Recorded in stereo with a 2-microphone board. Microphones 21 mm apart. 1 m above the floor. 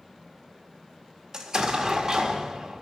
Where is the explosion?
25° right (ahead or behind), 1.5 m.